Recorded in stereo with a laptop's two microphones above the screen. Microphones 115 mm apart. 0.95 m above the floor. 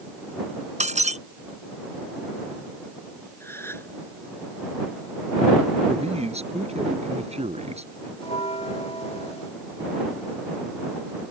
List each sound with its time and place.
0.8 s breaking glass: 90° right
3.4 s a gasp: 20° left (ahead or behind)
5.9 s a man speaking: 65° right (ahead or behind)
8.2 s a bell: 65° left (ahead or behind)